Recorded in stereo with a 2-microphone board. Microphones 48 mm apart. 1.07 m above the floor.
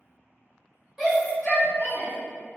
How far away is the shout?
About 1.1 m.